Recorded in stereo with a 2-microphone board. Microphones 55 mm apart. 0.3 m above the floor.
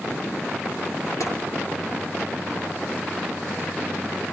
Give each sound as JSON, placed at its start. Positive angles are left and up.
{"t": 1.2, "sound": "tapping", "side_deg": 80, "distance_m": 6.0}